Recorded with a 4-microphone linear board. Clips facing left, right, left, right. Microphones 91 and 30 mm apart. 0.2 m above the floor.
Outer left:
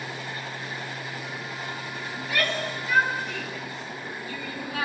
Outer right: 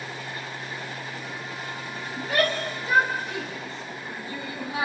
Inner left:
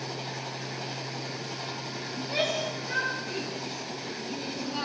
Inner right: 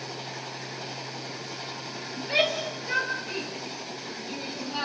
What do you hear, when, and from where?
2.2 s a shout: 45° right (ahead or behind), 5 m; by 4.8 s 25° right (ahead or behind), 8 m